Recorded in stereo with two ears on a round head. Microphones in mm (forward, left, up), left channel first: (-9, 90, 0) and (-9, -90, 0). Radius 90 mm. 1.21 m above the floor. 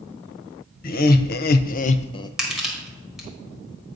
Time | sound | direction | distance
0.8 | laughter | 45° left (ahead or behind) | 0.8 m
2.4 | crushing | 5° right (ahead or behind) | 1.7 m